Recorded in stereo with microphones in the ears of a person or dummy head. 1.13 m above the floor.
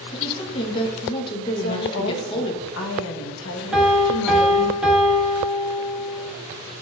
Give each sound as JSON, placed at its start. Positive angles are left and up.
{"t": 0.1, "sound": "a woman speaking", "side_deg": 25, "distance_m": 1.1}
{"t": 1.6, "sound": "a woman speaking", "side_deg": 65, "distance_m": 1.1}
{"t": 3.7, "sound": "a piano", "side_deg": -5, "distance_m": 1.4}